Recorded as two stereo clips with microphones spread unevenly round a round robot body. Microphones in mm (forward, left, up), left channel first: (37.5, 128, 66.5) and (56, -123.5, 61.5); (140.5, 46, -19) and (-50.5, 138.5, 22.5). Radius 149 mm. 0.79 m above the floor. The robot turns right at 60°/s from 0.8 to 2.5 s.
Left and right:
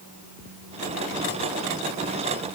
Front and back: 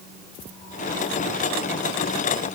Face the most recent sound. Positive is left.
No sound to turn to.